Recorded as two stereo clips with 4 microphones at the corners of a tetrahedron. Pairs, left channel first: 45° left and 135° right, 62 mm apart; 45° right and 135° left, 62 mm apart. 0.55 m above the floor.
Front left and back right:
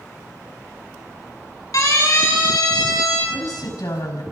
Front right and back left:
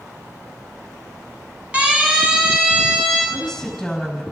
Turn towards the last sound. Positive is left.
turn(degrees=40)